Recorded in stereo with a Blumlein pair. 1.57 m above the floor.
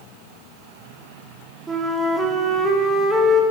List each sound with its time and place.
1.7 s a flute: 5° right, 0.7 m